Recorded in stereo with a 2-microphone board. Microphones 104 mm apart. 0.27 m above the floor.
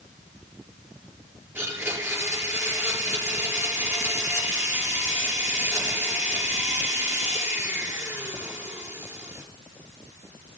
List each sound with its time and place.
1.6 s a blender: 20° right (ahead or behind), 5 m